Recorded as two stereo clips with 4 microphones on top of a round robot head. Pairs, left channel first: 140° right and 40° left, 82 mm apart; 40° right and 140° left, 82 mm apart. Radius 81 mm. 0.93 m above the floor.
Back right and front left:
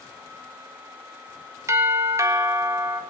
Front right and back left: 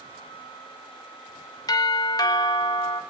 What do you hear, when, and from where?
1.7 s a doorbell: 10° right, 1.8 m